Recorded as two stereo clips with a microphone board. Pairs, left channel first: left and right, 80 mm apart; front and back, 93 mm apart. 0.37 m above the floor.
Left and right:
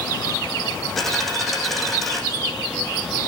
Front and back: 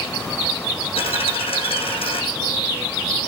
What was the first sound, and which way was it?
A dropped coin, straight ahead.